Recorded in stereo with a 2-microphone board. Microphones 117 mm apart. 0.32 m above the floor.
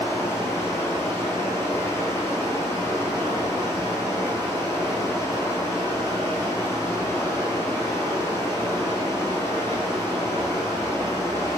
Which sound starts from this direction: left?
Running water, at 0.0 s.